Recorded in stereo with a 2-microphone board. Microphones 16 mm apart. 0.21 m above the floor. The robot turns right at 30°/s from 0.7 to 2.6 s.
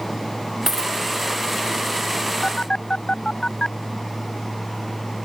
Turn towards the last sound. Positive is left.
turn(degrees=60)  # may be behind; listen again after turning